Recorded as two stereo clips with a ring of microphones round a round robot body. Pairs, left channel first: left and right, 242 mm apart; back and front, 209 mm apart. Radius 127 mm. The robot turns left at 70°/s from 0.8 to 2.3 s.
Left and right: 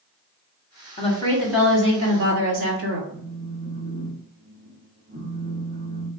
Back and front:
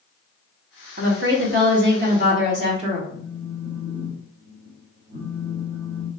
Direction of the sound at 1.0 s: 40° left.